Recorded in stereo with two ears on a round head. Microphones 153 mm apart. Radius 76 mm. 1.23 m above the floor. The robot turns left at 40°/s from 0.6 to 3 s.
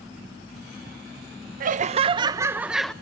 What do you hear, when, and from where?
1.6 s laughter: 130° right, 0.7 m; by 2.9 s 175° left, 0.7 m